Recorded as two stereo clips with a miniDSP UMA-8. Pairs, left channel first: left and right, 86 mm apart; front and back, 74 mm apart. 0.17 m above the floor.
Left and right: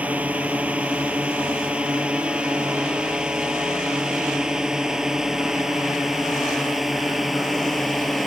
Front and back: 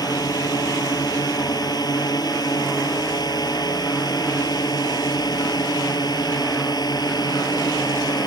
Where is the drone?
20° right; by 8.3 s straight ahead.